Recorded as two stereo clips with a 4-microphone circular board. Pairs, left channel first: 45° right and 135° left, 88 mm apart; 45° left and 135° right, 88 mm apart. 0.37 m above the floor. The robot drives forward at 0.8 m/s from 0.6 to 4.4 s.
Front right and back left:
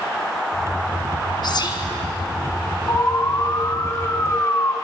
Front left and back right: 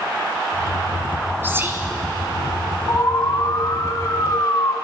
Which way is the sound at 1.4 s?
70° right.